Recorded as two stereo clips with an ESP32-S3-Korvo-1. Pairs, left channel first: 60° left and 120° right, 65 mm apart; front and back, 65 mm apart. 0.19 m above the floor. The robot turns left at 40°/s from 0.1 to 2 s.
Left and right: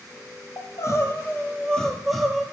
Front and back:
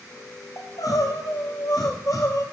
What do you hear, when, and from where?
0.6 s crying: 30° left, 1.0 m; by 2.4 s 25° right, 1.0 m